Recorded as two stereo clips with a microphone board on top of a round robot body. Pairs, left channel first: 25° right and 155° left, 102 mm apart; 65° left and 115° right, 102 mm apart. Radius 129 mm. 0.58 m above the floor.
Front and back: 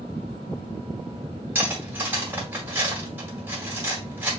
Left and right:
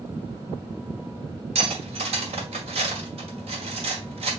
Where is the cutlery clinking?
130° right, 1.8 m.